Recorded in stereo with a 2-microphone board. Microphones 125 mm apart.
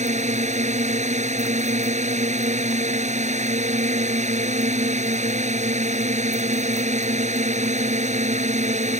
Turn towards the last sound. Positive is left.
turn(degrees=-70)  # may be behind; listen again after turning